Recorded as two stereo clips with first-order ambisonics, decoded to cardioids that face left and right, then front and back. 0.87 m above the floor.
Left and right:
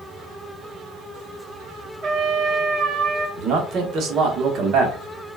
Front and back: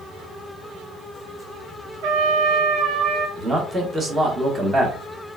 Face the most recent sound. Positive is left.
turn(degrees=-115)